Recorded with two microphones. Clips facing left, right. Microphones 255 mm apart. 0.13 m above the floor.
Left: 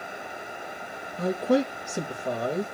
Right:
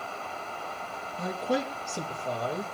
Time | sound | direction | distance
1.2 | a man speaking | 15° left (ahead or behind) | 3.5 m